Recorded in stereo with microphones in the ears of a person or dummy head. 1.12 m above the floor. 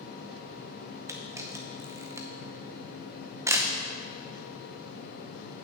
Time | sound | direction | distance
1.1 | a camera shutter | 10° right (ahead or behind) | 0.7 m